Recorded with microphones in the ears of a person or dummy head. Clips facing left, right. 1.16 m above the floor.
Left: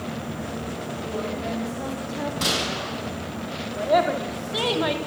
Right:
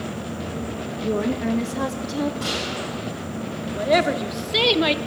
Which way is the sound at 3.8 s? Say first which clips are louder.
Right 1 dB; 35° right (ahead or behind).